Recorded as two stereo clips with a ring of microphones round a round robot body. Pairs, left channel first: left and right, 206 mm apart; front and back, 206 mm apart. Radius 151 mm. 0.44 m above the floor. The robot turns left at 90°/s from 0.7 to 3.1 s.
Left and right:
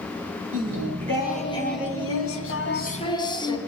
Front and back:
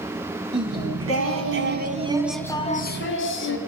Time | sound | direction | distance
0.5 | singing | 125° right | 3 m